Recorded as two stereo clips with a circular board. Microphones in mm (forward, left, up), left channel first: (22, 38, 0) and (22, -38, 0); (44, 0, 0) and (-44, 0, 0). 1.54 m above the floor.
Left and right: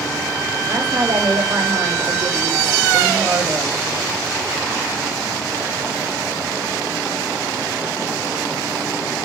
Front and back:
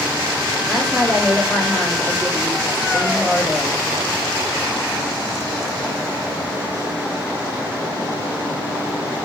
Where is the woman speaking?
90° right, 3.5 m.